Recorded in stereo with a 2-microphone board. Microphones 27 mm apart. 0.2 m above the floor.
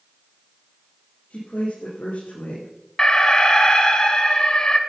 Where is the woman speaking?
75° left (ahead or behind), 6.5 m.